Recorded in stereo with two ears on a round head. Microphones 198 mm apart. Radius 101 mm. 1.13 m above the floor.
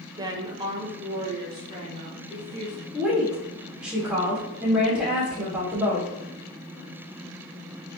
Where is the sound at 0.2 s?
15° right (ahead or behind), 0.6 m; by 2.8 s 20° right (ahead or behind), 1.6 m.